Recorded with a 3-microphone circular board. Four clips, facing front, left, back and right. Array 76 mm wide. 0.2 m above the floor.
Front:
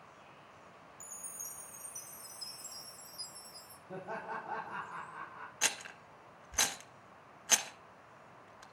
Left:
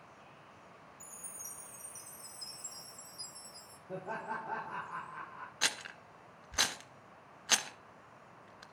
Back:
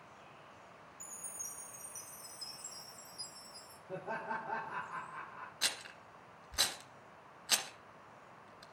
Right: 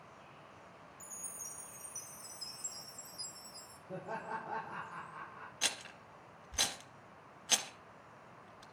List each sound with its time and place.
1.0 s a chime: 55° left, 4.5 m
3.9 s laughter: 125° left, 7.5 m
5.6 s a rattle: 75° left, 1.7 m